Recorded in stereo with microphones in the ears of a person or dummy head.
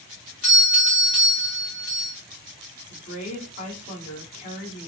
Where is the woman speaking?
45° left (ahead or behind), 1.2 m.